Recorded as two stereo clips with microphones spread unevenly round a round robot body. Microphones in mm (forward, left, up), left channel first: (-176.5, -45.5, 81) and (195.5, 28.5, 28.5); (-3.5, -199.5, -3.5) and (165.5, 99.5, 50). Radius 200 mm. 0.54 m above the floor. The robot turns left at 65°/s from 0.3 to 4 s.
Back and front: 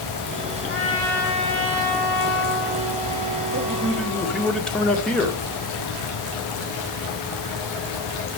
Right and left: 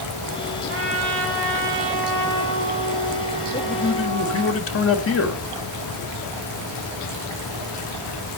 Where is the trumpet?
125° left, 4.5 m; by 4.5 s 90° right, 4.5 m.